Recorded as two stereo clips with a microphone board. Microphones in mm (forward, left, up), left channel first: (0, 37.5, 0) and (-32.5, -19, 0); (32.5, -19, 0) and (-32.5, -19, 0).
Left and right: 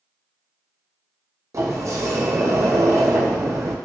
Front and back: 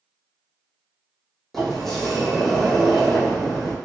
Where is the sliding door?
85° right, 0.8 m.